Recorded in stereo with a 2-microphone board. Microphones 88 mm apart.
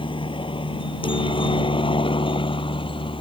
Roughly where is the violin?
I don't hear a violin.